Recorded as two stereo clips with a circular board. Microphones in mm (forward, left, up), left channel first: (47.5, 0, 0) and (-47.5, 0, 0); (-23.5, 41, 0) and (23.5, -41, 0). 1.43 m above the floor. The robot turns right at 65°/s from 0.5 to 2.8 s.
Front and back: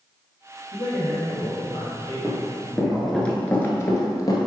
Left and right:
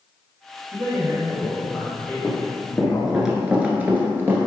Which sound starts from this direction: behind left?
Running footsteps, at 2.2 s.